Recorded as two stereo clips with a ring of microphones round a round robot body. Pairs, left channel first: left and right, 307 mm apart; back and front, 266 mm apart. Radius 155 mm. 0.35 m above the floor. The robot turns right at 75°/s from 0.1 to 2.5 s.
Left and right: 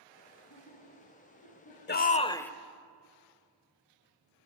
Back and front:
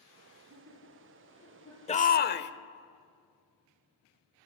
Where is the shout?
125° left, 1.0 m; by 2.5 s 175° left, 1.0 m.